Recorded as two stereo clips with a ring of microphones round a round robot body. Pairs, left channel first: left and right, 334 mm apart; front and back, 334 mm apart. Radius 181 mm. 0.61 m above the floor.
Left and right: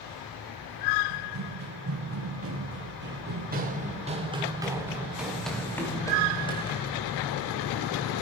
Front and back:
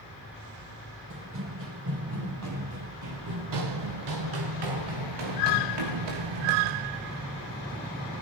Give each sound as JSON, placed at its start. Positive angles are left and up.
{"t": 1.1, "sound": "running footsteps", "azimuth_deg": -125, "distance_m": 6.5}